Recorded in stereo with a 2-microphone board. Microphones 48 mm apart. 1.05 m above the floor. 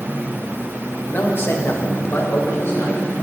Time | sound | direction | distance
1.1 | a man speaking | 40° left (ahead or behind) | 1.5 m